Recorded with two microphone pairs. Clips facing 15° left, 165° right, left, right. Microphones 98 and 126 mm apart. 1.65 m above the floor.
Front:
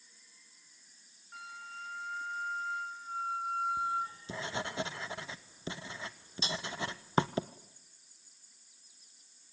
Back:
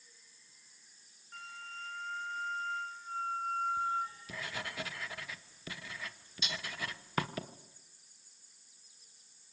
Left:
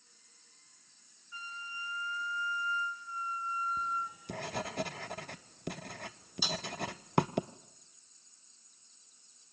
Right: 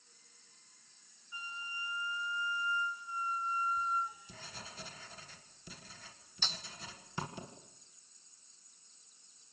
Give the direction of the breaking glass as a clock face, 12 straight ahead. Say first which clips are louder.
Front 4 dB, left 8 dB; 11 o'clock.